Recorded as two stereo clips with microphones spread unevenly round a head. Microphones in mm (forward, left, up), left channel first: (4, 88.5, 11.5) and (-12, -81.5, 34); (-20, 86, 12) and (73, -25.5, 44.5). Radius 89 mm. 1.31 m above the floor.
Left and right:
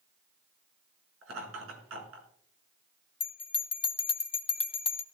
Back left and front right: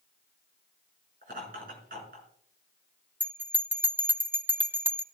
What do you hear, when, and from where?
1.2 s laughter: 95° right, 5 m
3.2 s a bell: 30° left, 0.8 m